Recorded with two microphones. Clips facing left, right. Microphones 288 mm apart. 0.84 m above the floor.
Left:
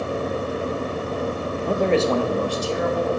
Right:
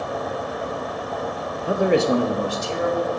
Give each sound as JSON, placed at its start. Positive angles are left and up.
{"t": 1.7, "sound": "a man speaking", "side_deg": -5, "distance_m": 0.7}